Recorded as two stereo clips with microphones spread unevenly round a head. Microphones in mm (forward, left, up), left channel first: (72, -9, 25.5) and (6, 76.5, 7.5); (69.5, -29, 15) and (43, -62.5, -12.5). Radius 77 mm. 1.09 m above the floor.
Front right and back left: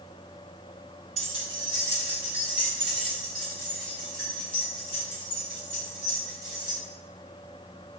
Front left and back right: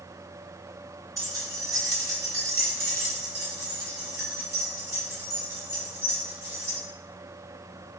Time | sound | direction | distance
1.2 | keys jangling | straight behind | 1.0 m